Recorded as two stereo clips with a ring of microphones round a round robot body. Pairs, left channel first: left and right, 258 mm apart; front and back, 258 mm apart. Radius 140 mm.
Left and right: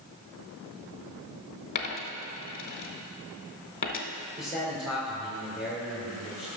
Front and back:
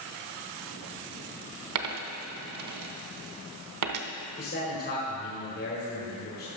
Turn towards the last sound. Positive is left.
turn(degrees=-5)